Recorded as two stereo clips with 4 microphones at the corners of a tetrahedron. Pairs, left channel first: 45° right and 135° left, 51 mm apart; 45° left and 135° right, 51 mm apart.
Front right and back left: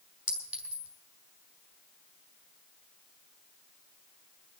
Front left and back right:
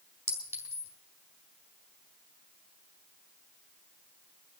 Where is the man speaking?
No man speaking in this recording.